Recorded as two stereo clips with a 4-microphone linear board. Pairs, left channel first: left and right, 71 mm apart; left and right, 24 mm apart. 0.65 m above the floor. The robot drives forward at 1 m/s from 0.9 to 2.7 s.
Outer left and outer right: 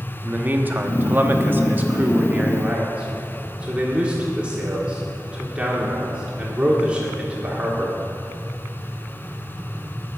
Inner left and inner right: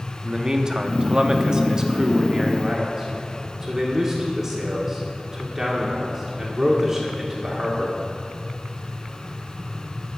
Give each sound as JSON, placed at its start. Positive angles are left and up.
{"t": 0.2, "sound": "a man speaking", "side_deg": -25, "distance_m": 1.1}